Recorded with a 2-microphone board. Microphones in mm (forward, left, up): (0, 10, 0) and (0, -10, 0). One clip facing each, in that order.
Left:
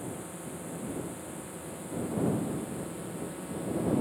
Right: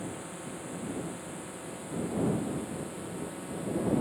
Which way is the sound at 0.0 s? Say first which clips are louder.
Even; 20° right (ahead or behind).